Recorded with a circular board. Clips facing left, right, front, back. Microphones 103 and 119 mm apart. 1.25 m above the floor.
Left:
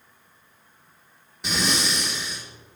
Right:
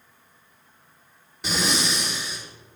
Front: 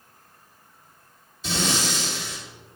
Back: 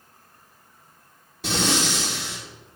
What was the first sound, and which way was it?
Breathing, straight behind.